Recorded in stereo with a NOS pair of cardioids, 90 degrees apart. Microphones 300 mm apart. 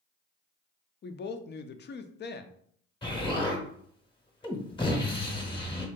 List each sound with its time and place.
1.0 s a woman speaking: 35° left, 0.5 m
3.0 s an explosion: 15° left, 1.0 m